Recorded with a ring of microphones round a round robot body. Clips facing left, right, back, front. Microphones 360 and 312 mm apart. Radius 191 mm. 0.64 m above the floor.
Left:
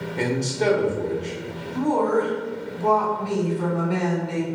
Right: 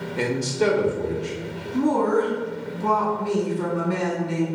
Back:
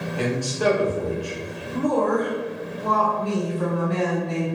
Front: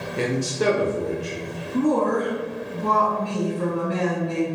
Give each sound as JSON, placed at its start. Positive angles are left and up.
{"t": 0.2, "sound": "a man speaking", "azimuth_deg": -30, "distance_m": 0.5}
{"t": 1.7, "sound": "a woman speaking", "azimuth_deg": -35, "distance_m": 0.8}